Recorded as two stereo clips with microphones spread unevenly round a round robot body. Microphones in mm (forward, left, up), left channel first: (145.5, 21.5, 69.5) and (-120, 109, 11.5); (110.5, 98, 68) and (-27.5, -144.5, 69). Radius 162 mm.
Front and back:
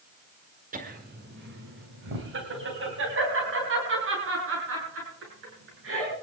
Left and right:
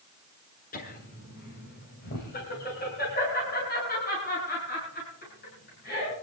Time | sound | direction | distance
0.7 | laughter | 115° left | 1.5 m